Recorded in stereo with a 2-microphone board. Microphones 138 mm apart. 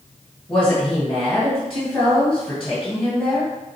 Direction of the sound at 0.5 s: 5° left (ahead or behind).